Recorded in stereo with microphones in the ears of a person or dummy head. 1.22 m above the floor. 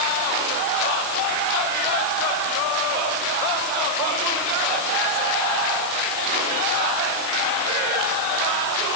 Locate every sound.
Only background noise.